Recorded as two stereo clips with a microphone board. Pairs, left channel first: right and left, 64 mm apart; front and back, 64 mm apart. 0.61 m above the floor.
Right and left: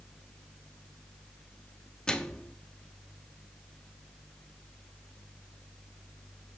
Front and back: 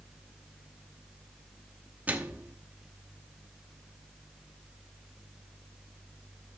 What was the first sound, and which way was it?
A microwave, 150° right.